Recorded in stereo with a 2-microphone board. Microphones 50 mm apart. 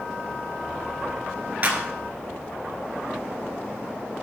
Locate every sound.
1.6 s a clap: 30° right (ahead or behind), 1.7 m